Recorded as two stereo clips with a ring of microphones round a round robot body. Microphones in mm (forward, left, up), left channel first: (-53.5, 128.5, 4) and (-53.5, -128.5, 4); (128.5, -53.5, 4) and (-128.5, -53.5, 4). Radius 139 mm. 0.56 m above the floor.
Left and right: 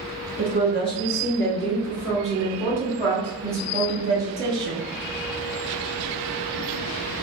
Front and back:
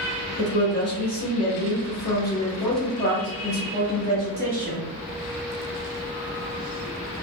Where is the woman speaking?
30° left, 1.6 m; by 4.8 s 135° right, 1.6 m.